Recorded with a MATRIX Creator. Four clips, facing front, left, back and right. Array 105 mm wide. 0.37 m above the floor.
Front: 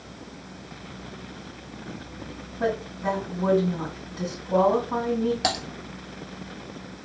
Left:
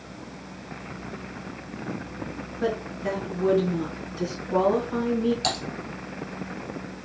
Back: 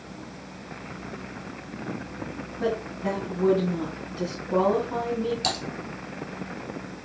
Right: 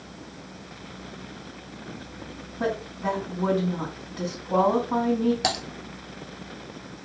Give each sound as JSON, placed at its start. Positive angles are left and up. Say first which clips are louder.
{"t": 2.6, "sound": "a woman speaking", "louder": "even, front 1 dB", "azimuth_deg": -85, "distance_m": 3.0}
{"t": 5.4, "sound": "typing on a keyboard", "louder": "right 1 dB, front 3 dB", "azimuth_deg": -45, "distance_m": 1.2}